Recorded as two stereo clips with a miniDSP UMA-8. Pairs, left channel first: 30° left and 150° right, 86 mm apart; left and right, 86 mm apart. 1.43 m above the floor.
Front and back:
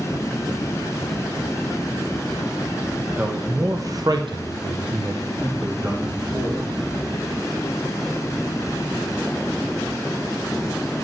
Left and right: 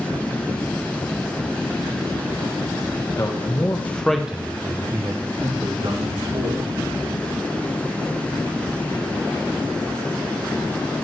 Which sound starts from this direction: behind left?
A man speaking, at 3.2 s.